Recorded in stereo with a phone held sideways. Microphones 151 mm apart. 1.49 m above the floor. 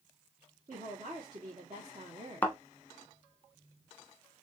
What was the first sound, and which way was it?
A woman speaking, 55° right (ahead or behind).